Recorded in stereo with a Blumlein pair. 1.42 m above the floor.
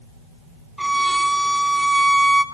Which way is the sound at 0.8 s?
5° right.